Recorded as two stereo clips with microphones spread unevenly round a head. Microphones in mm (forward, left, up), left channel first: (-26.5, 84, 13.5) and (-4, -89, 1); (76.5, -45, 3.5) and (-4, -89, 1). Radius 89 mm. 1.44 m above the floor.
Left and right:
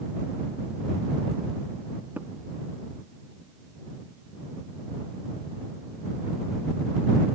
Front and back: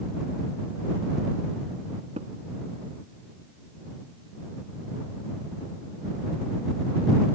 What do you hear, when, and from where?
2.2 s tapping: 165° right